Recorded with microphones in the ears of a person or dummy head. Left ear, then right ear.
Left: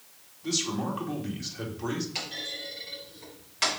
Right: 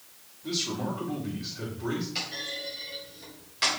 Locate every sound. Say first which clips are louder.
0.4 s a man speaking: left 1 dB; 55° left (ahead or behind), 2.5 m
2.1 s a clunk: right 1 dB; 20° left (ahead or behind), 3.5 m